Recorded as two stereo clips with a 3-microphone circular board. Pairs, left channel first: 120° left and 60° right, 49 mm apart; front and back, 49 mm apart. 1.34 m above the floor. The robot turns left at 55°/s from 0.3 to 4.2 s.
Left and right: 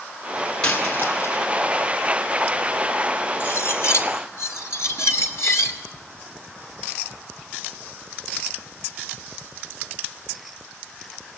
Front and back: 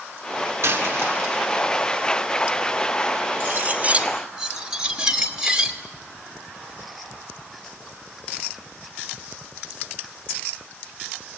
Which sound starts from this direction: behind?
A dropped coin, at 0.6 s.